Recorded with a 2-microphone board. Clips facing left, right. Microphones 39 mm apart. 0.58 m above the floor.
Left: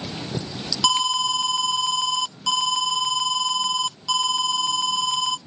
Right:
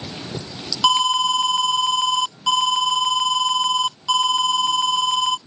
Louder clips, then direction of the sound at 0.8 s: Right 4 dB; 20° right (ahead or behind).